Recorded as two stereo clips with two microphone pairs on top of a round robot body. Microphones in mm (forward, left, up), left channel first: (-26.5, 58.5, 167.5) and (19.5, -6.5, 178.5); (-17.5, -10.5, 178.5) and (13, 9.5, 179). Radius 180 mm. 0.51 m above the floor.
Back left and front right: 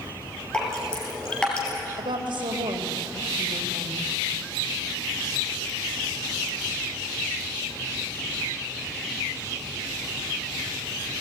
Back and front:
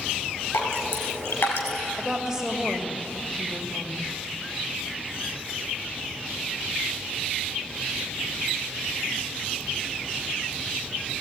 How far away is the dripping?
About 3.5 m.